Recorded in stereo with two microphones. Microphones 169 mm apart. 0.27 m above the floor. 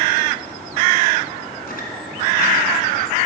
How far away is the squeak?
About 2 m.